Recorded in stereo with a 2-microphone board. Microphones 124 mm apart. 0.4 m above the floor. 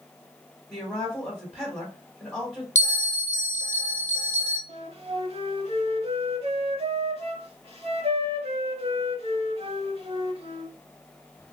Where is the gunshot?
No gunshot in this recording.